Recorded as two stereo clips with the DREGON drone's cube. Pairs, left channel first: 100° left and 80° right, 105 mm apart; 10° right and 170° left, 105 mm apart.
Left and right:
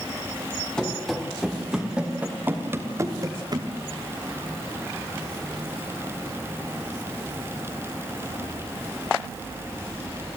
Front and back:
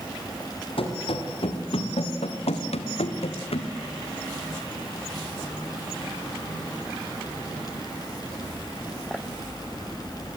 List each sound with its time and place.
0.8 s running footsteps: 15° left, 3 m; by 3.7 s 35° right, 2 m